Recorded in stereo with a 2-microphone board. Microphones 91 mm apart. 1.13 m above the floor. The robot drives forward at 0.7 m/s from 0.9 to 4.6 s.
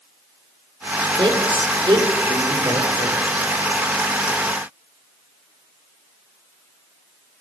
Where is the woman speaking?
70° right (ahead or behind), 3.5 m; by 3.3 s 50° right (ahead or behind), 4 m.